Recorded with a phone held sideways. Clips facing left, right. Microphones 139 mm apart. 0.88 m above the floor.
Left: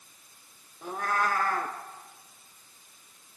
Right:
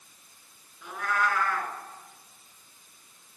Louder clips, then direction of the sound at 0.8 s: Even; 40° left (ahead or behind).